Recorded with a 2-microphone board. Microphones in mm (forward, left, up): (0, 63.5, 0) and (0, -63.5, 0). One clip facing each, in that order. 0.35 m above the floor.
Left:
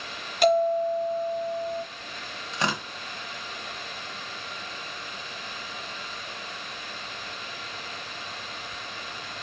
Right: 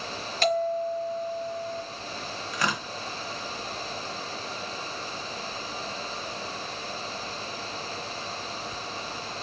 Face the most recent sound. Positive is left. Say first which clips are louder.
# left 1 dB
turn(degrees=25)  # may be behind; listen again after turning